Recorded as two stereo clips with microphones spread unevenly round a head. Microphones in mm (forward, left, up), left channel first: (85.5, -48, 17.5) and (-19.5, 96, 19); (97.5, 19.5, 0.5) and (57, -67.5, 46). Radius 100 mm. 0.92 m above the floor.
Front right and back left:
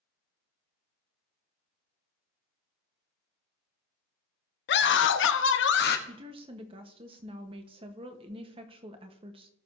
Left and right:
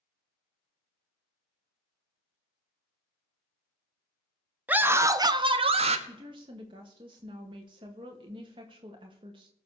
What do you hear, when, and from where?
4.7 s a scream: 35° right, 1.3 m; by 6.0 s 95° right, 1.2 m
6.1 s a woman speaking: 175° right, 1.1 m